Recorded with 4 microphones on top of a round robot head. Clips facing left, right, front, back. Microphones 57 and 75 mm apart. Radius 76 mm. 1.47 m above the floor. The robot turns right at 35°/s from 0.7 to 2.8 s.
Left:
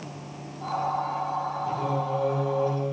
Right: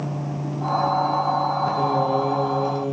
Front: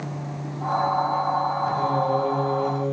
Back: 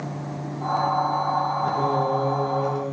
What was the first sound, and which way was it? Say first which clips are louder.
Singing: right 7 dB, even; 130° right.